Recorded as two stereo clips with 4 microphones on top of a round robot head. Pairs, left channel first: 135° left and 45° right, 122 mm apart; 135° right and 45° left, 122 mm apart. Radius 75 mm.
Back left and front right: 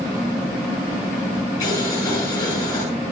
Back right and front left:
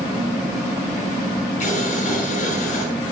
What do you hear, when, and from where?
1.6 s boiling: 165° right, 8 m